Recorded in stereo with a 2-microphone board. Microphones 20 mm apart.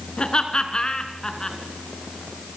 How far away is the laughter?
About 2.5 m.